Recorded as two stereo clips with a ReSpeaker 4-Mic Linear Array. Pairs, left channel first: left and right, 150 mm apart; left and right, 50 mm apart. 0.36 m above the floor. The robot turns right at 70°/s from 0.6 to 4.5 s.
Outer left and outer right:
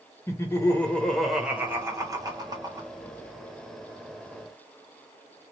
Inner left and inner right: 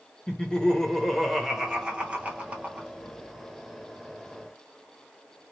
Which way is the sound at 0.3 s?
20° left (ahead or behind).